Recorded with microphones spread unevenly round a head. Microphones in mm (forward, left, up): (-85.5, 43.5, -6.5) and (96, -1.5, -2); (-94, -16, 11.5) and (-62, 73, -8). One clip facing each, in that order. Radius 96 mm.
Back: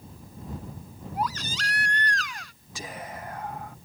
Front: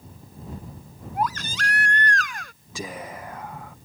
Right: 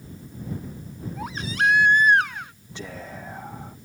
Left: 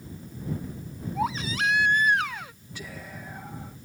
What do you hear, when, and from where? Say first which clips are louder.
1.1 s a baby crying: front 4 dB, even; 25° left
2.8 s whispering: front 4 dB, right 4 dB; 30° right